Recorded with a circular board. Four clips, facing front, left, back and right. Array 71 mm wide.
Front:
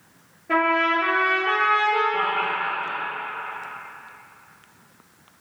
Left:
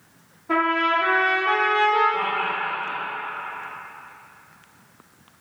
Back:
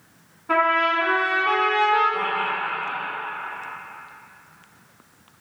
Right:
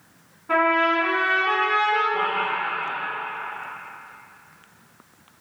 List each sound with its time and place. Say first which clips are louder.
0.5 s a trumpet: right 1 dB, back 1 dB; 165° right, 1.6 m
2.1 s laughter: right 1 dB, front 1 dB; 40° right, 1.1 m